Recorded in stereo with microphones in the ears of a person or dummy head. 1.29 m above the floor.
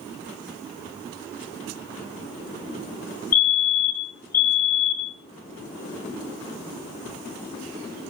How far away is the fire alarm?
About 1.4 m.